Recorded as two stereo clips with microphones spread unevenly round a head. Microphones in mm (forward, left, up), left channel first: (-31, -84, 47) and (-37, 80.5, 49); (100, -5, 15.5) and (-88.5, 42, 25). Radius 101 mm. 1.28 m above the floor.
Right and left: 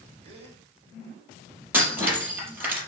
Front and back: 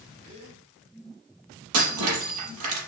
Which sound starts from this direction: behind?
Breaking glass, at 1.7 s.